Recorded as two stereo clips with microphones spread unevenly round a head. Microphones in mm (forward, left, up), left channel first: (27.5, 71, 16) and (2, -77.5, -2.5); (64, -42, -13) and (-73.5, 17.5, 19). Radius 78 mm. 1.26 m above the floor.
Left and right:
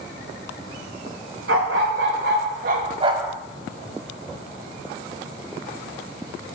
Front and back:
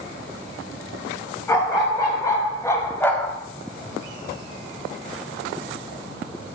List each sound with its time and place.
1.5 s a dog barking: 100° right, 2.5 m; by 3.4 s 125° left, 0.8 m